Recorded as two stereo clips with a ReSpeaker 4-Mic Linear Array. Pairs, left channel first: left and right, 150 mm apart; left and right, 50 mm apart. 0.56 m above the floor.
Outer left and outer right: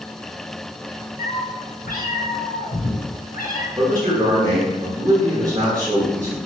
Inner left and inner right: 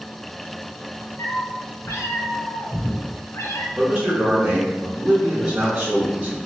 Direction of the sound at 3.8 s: 25° right (ahead or behind).